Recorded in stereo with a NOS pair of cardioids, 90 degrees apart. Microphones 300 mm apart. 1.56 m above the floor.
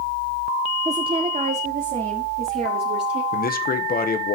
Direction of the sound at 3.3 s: 30° left.